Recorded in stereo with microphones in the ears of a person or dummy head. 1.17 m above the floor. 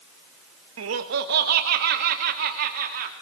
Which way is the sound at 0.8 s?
75° right (ahead or behind).